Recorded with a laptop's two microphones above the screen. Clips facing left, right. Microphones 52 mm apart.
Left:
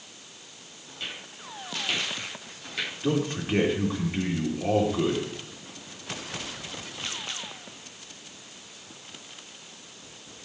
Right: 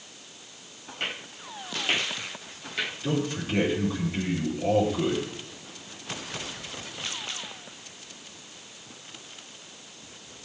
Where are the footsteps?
50° right (ahead or behind), 1.7 m; by 2.9 s 5° right (ahead or behind), 1.0 m.